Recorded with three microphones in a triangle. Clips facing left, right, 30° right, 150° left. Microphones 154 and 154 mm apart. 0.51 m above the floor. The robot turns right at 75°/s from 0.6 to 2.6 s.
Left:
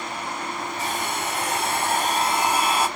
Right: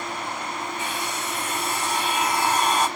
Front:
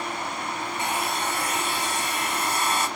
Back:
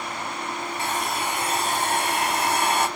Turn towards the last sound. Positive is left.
turn(degrees=170)